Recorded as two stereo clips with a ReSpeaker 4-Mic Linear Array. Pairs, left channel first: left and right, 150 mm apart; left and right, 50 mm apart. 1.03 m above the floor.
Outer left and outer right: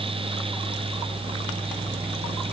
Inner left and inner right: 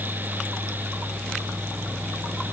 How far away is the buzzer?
I don't hear a buzzer.